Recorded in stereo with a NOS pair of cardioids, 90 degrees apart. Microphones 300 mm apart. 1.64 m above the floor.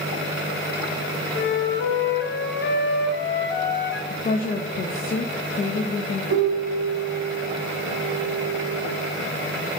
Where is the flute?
35° left, 1.2 m.